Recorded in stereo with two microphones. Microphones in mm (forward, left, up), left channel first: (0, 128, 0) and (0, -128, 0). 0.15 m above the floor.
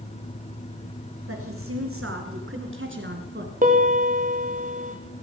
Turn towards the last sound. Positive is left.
turn(degrees=-30)  # may be behind; listen again after turning